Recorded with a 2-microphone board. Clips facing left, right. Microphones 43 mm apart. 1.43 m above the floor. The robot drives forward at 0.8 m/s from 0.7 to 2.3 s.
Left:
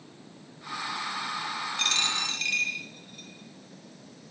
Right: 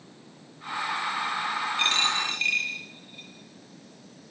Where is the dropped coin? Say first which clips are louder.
Right 3 dB; 25° right (ahead or behind), 9.5 m.